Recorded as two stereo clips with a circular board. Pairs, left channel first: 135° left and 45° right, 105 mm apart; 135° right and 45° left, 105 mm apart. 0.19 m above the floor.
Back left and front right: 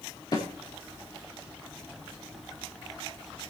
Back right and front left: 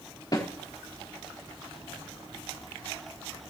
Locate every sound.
0.3 s a snare drum: 175° left, 4 m